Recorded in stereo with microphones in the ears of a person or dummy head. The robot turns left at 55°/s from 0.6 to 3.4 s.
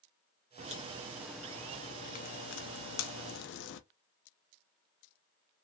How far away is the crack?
About 0.6 m.